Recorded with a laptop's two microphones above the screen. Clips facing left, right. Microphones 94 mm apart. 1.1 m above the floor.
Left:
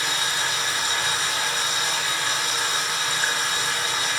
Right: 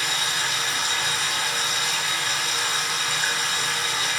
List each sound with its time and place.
0.0 s running water: 20° left (ahead or behind), 1.2 m